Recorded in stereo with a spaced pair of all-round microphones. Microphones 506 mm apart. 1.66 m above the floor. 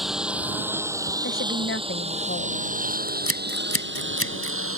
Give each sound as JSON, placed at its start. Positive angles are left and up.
{"t": 0.0, "sound": "a lawn mower", "side_deg": 0}
{"t": 1.2, "sound": "a woman speaking", "side_deg": 25}
{"t": 3.1, "sound": "scissors", "side_deg": 25}